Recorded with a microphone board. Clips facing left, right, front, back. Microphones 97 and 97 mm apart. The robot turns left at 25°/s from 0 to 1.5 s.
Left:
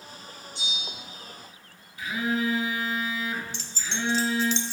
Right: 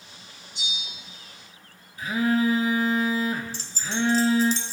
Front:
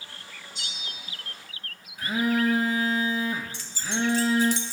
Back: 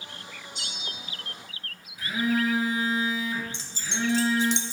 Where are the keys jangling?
125° right, 0.8 m.